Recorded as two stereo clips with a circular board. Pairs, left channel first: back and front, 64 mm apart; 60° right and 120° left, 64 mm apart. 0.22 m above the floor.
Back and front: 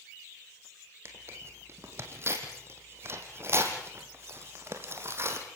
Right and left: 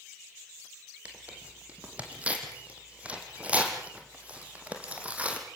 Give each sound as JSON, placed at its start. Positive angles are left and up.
{"t": 1.1, "sound": "tearing paper", "azimuth_deg": 50, "distance_m": 3.5}